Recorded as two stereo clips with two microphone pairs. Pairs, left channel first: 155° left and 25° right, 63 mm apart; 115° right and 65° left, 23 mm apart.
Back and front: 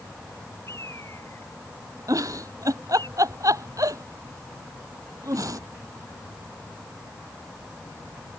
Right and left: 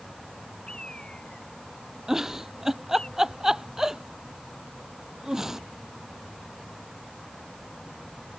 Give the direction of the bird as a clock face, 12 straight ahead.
5 o'clock.